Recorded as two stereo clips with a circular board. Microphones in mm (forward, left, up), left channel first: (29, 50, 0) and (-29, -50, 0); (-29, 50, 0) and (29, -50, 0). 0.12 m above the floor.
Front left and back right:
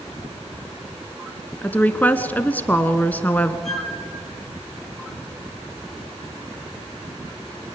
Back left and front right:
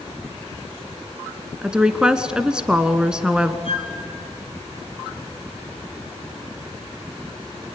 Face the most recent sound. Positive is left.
turn(degrees=150)